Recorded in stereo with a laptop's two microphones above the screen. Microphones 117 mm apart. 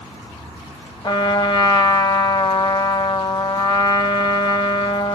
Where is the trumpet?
40° left (ahead or behind), 1.0 m.